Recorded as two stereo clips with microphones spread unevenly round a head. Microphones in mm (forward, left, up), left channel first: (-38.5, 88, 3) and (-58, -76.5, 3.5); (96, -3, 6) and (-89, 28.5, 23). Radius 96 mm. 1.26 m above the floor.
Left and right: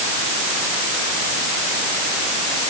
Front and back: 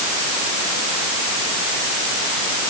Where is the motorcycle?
I don't hear a motorcycle.